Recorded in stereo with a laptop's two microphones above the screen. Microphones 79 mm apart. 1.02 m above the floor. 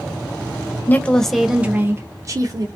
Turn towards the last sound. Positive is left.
turn(degrees=-50)  # may be behind; listen again after turning